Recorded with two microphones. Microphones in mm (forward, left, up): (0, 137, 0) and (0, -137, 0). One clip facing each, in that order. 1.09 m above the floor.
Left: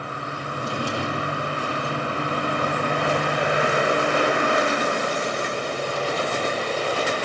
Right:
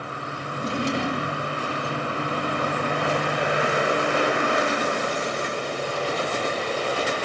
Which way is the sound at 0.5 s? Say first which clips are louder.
Right 3 dB; 25° right (ahead or behind).